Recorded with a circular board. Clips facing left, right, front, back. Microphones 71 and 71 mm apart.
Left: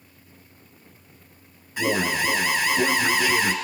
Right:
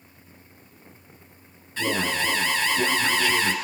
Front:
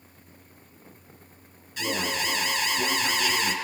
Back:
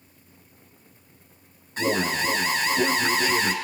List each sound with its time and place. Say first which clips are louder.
1.8 s an alarm: left 2 dB, back 5 dB; 160° left, 0.9 m